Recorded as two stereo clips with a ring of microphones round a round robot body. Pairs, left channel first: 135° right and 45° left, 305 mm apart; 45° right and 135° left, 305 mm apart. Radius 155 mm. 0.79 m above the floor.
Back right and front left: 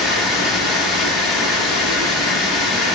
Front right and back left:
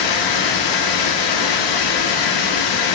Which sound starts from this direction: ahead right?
Running water, at 0.0 s.